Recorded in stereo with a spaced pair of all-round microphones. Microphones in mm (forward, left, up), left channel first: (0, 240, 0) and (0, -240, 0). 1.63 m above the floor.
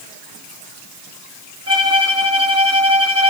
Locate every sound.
1.7 s a violin: 30° right (ahead or behind), 3 m